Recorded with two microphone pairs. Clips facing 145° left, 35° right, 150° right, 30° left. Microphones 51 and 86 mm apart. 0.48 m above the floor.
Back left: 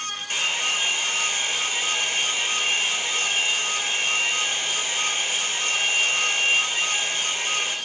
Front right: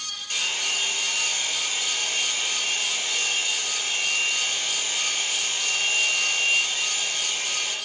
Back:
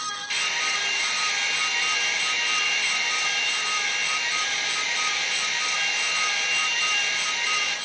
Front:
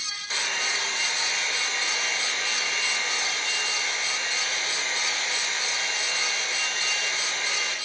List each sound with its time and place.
0.3 s a hair dryer: 85° left, 2 m